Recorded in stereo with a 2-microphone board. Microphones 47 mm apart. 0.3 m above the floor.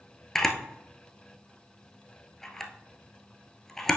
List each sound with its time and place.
0.3 s a camera shutter: 10° left (ahead or behind), 1.0 m